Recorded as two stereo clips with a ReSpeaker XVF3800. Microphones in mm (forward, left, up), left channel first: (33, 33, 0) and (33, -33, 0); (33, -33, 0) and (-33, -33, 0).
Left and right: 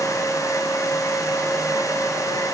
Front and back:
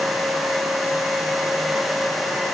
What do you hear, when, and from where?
Only background noise.